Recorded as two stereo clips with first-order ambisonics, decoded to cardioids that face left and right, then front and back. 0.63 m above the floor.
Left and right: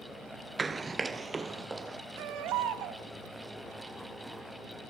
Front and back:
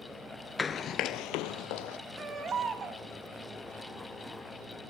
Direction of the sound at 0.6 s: 50° right.